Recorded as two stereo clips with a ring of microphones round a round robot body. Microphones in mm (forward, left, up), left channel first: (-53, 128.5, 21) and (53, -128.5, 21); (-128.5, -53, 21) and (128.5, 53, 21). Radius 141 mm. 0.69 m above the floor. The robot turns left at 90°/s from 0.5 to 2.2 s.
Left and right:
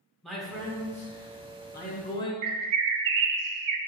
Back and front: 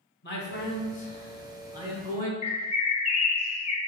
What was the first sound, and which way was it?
A man speaking, 155° right.